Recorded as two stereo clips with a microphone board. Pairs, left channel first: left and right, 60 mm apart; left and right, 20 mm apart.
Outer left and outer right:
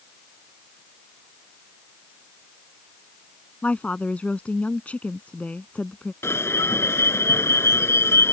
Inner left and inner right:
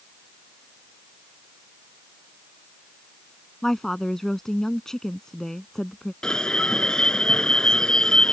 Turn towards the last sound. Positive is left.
turn(degrees=45)  # may be behind; listen again after turning